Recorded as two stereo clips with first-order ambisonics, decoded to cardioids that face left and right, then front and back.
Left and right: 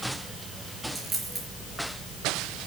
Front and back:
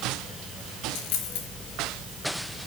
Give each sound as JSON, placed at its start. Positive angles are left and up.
{"t": 0.9, "sound": "a dropped coin", "azimuth_deg": -15, "distance_m": 4.0}